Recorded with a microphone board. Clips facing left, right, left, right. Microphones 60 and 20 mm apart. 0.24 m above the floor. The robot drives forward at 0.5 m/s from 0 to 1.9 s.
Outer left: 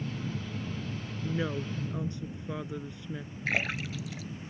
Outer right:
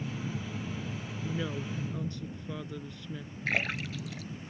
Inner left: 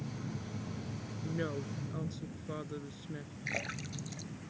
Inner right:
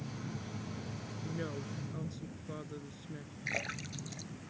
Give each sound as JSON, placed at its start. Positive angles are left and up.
{"t": 1.2, "sound": "a woman speaking", "side_deg": 25}
{"t": 3.5, "sound": "a splash", "side_deg": 0}